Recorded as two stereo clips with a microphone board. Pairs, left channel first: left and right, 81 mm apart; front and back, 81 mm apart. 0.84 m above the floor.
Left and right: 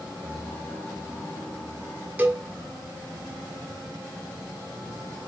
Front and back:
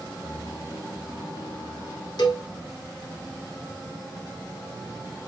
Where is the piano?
20° left, 4 m.